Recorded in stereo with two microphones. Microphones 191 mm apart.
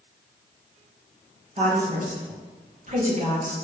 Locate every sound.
1.6 s a woman speaking: 45° right (ahead or behind), 2.5 m